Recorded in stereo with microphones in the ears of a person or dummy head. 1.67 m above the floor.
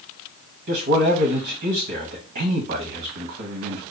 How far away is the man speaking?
About 0.6 m.